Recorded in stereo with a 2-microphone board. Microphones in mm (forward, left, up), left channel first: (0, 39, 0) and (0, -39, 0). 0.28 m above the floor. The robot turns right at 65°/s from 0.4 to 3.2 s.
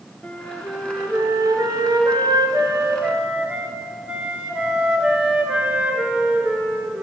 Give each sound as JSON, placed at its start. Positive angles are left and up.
{"t": 0.2, "sound": "a flute", "azimuth_deg": 165, "distance_m": 1.0}